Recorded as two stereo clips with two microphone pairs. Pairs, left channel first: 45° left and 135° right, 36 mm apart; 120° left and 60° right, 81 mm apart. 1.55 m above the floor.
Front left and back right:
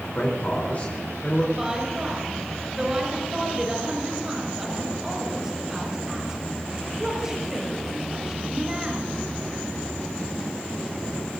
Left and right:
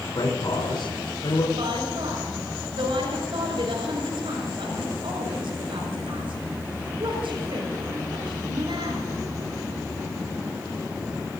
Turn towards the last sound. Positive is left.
turn(degrees=-60)